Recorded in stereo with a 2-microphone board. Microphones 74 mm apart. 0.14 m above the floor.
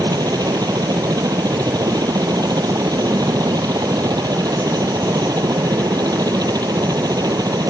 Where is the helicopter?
65° right (ahead or behind).